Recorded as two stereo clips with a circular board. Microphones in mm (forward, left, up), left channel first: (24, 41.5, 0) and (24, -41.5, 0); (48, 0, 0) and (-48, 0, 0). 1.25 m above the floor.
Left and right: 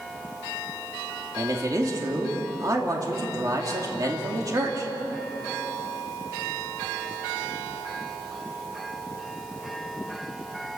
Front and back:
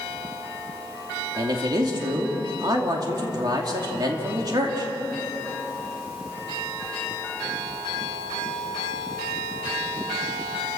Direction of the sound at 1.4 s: 135° right.